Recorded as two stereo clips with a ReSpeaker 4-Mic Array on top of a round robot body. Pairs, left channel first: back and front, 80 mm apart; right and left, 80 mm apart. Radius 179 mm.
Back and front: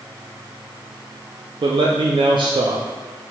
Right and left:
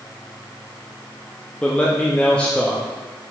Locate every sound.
1.6 s a man speaking: 15° right, 0.5 m